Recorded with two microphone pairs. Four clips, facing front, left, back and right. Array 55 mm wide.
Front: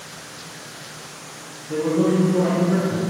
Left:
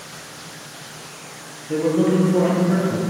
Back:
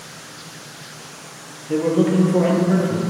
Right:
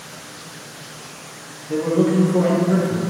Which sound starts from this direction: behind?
A man speaking, at 1.7 s.